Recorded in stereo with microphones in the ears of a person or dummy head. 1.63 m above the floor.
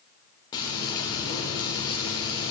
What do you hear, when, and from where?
0.5 s frying: 35° left (ahead or behind), 3 m